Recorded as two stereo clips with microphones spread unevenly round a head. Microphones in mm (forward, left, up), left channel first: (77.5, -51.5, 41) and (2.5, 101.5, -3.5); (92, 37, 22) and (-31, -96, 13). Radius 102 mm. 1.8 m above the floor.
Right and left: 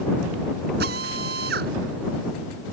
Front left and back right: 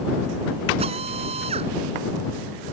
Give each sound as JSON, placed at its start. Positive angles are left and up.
{"t": 0.8, "sound": "a drill", "azimuth_deg": 165}